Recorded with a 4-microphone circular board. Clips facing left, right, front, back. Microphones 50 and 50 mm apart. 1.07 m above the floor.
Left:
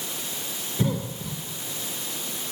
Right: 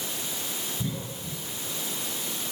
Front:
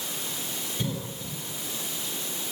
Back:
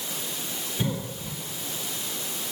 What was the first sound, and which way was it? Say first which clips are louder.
A cough: left 7 dB, back 4 dB; 105° left.